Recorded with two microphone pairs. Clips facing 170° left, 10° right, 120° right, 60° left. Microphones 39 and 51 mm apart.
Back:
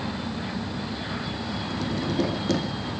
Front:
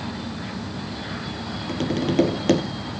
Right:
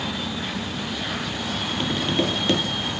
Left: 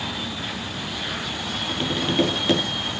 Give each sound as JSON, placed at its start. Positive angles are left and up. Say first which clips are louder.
{"t": 1.7, "sound": "tapping", "louder": "front 6 dB, left 2 dB", "azimuth_deg": -25, "distance_m": 4.0}